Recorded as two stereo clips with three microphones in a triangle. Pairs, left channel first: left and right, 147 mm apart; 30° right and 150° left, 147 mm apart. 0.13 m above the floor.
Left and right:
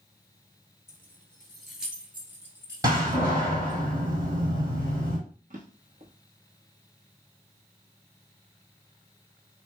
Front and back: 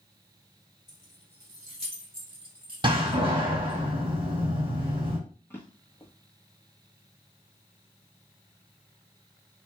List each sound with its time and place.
0.9 s keys jangling: 155° left, 1.2 m; by 3.8 s 150° right, 2 m
2.8 s a door slam: 155° right, 2.5 m
5.5 s a drawer: 105° right, 1.2 m